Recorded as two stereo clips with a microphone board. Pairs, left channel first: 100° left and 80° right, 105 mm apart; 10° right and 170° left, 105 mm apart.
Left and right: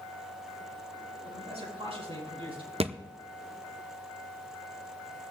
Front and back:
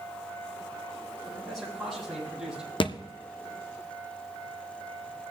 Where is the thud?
55° right, 0.7 m.